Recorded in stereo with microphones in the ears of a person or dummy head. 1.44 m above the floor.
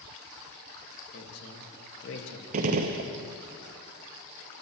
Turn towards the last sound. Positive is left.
turn(degrees=-50)  # may be behind; listen again after turning